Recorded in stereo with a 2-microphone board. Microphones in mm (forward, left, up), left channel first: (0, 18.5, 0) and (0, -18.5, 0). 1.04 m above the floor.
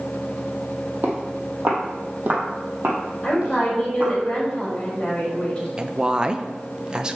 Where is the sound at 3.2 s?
20° left (ahead or behind), 3.5 m.